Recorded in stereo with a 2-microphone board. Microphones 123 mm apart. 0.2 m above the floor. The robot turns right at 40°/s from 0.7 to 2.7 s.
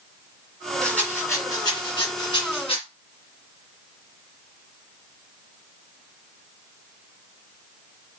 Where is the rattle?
5° left (ahead or behind), 1.9 m; by 2.8 s 55° left (ahead or behind), 1.9 m.